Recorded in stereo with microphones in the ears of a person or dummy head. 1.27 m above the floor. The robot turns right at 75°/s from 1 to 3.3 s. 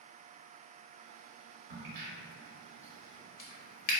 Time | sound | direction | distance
1.7 | a crack | 55° right (ahead or behind) | 0.6 m